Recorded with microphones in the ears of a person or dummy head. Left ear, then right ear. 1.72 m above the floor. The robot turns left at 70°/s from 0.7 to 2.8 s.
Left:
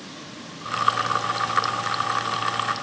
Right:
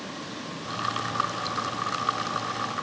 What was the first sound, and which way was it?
Only background noise.